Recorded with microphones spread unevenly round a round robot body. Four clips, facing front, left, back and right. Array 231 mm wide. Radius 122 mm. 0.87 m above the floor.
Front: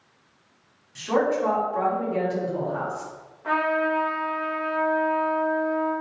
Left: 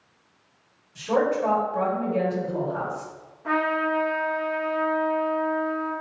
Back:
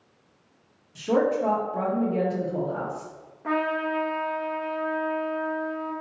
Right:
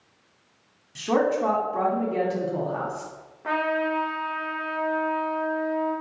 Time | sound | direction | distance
0.9 | a woman speaking | 130° right | 2 m
3.4 | a trumpet | 135° right | 1.3 m